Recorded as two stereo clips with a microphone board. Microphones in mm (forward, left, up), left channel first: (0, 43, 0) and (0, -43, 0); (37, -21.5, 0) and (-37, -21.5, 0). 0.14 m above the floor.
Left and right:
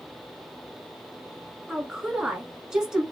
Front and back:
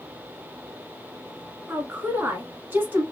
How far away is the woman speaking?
About 1.2 m.